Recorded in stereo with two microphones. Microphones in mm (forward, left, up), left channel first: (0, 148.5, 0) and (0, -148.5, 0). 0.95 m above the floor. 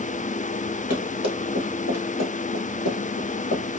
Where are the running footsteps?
60° left (ahead or behind), 1.7 m; by 3.6 s 50° left (ahead or behind), 2.5 m.